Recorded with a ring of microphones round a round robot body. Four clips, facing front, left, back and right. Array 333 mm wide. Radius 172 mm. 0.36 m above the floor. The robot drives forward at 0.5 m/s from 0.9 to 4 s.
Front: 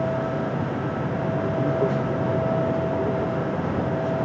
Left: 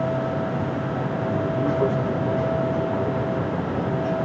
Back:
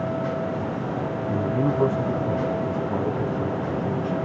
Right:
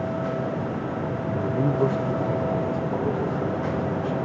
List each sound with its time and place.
1.3 s a man speaking: 160° left, 3 m; by 4.2 s 170° left, 4.5 m